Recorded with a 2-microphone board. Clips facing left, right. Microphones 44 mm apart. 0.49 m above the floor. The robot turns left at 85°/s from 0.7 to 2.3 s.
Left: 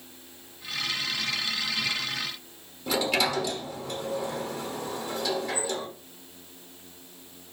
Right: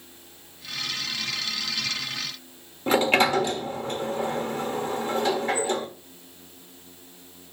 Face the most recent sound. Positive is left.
turn(degrees=-40)  # may be behind; listen again after turning